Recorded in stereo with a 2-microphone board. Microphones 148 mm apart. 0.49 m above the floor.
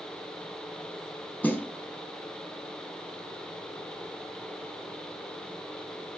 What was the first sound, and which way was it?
A snare drum, 10° left (ahead or behind).